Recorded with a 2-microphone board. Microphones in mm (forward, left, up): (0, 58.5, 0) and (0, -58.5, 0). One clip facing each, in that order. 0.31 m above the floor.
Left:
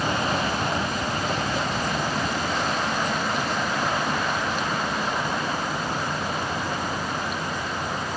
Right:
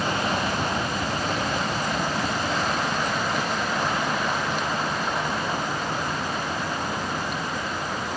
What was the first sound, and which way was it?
Only background noise.